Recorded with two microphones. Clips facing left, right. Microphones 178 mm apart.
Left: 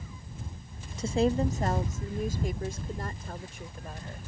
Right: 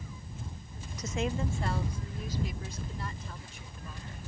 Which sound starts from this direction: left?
A woman speaking, at 1.0 s.